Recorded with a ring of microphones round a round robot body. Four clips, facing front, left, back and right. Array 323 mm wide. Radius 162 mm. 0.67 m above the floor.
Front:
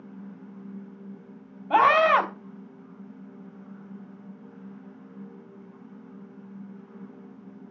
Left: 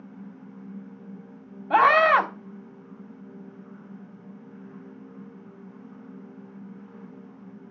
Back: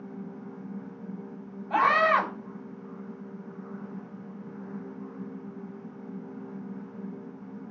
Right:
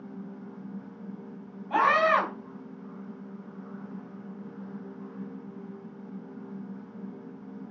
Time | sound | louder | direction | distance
1.7 | a scream | left 5 dB, front 4 dB | 50° left | 3.5 m